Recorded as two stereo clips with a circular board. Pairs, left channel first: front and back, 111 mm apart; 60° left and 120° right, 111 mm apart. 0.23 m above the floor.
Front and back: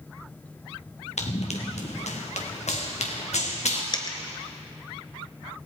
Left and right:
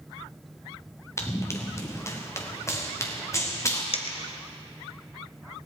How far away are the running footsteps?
About 2 m.